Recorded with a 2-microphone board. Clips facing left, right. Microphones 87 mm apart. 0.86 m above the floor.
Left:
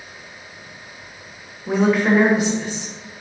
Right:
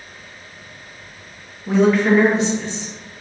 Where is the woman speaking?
10° left (ahead or behind), 1.0 m.